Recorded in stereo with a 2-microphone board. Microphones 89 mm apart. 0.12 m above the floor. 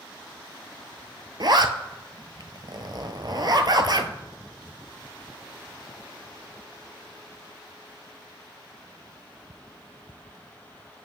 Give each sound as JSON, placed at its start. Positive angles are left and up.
{"t": 1.4, "sound": "a zipper", "side_deg": -55, "distance_m": 0.6}